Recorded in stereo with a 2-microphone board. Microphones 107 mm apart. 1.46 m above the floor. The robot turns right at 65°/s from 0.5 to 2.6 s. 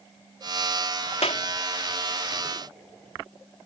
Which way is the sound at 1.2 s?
90° left.